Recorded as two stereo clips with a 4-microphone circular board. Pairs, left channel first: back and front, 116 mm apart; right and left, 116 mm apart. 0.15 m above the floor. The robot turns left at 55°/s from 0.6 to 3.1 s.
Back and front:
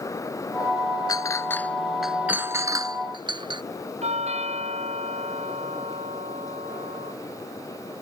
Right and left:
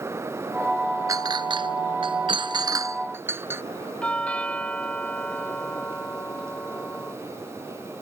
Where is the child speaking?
No child speaking in this recording.